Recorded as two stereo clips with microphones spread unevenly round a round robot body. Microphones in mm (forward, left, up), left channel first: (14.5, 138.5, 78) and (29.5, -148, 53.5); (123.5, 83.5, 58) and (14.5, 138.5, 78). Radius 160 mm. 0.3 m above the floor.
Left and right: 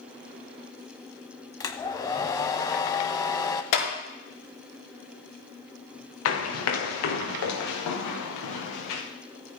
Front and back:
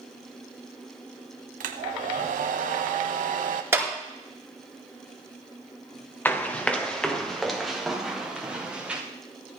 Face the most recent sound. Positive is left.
turn(degrees=70)